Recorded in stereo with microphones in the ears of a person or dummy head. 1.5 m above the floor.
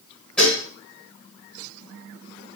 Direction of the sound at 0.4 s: 5° left (ahead or behind).